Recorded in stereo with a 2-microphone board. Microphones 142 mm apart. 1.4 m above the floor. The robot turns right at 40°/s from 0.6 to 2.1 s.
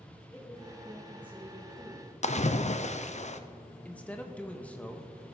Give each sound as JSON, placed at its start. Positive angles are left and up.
{"t": 0.3, "sound": "a woman speaking", "azimuth_deg": 165, "distance_m": 2.5}
{"t": 2.2, "sound": "a splash", "side_deg": 50, "distance_m": 0.6}
{"t": 3.9, "sound": "a man speaking", "side_deg": 10, "distance_m": 1.1}